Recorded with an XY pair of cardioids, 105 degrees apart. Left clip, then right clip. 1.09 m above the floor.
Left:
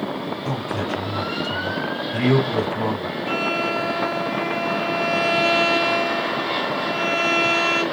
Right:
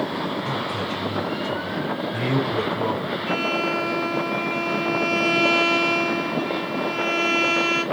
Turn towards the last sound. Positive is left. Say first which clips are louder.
# left 1 dB
turn(degrees=40)